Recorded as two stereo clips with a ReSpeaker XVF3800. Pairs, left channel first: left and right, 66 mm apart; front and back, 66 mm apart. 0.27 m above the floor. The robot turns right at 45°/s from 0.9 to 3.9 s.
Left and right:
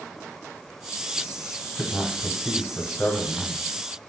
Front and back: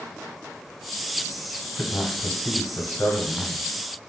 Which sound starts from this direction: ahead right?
A man speaking, at 1.8 s.